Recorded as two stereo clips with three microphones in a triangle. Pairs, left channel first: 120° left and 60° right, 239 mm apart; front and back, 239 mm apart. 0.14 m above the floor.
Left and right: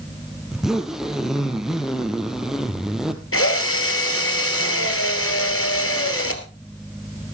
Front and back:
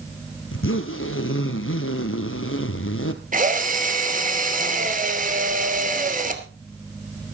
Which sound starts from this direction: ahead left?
A zipper, at 0.5 s.